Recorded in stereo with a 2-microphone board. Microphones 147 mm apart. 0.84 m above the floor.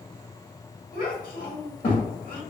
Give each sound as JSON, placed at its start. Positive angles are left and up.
{"t": 0.9, "sound": "a child speaking", "side_deg": 65, "distance_m": 0.7}